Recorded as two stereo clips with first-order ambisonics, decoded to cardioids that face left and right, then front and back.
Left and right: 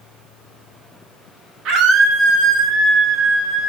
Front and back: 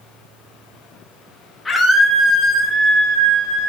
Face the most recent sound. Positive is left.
turn(degrees=-150)